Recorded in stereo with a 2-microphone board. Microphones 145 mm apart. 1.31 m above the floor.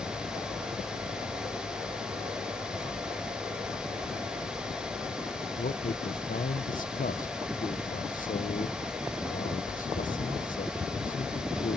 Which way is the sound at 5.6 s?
65° left (ahead or behind).